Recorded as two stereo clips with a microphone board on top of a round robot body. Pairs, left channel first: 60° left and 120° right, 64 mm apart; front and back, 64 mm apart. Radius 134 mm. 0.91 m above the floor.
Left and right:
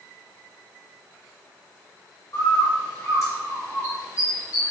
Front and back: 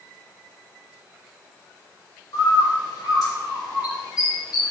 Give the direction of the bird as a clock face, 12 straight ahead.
11 o'clock.